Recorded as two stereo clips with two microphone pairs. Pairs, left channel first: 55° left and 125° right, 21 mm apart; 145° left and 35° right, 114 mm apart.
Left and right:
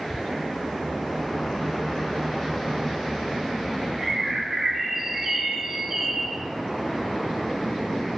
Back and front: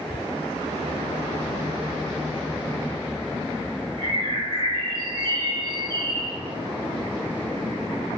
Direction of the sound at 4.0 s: 60° right.